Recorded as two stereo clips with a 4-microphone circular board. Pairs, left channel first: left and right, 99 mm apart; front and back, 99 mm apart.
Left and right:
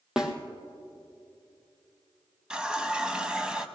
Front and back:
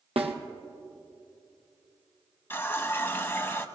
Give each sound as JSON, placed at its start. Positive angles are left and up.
{"t": 0.2, "sound": "a snare drum", "azimuth_deg": -175, "distance_m": 1.4}
{"t": 2.5, "sound": "a running tap", "azimuth_deg": -20, "distance_m": 0.7}